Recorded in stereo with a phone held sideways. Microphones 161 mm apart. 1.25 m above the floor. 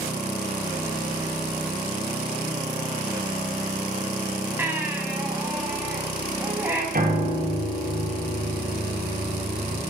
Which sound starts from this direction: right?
A piano, at 6.9 s.